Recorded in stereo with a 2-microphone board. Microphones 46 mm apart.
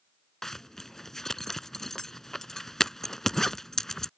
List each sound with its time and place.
0.4 s a zipper: 10° left (ahead or behind)